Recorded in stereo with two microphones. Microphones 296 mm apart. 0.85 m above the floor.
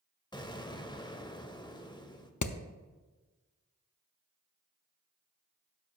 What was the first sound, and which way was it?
An explosion, 15° left (ahead or behind).